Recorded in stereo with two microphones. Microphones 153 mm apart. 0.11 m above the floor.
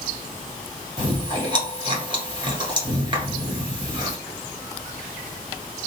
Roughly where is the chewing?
Right.